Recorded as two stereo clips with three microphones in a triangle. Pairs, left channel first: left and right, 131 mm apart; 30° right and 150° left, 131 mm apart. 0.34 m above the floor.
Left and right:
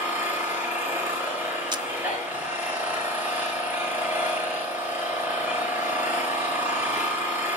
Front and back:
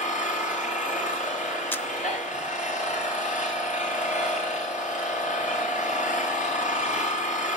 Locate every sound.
0.0 s an engine running: 15° right, 7 m
1.7 s a camera shutter: 95° right, 0.6 m